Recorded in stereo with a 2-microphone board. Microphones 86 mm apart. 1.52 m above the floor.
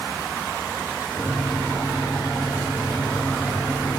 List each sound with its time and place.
1.1 s a microwave: 50° left (ahead or behind), 4 m